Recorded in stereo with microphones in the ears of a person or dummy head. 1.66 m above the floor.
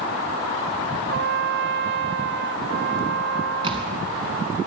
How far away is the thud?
About 2 m.